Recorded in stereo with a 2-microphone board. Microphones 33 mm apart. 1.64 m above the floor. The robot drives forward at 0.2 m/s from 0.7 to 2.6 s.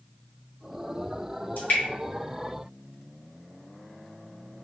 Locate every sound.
1.6 s dripping: 55° left (ahead or behind), 1.6 m